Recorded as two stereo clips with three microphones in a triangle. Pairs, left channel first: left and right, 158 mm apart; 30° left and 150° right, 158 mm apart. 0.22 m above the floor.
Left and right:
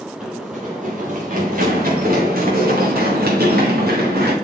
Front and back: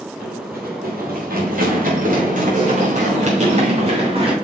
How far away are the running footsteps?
About 4.5 m.